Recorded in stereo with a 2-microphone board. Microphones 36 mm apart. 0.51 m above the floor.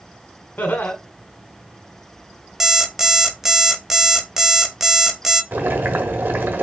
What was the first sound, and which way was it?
Laughter, 65° left (ahead or behind).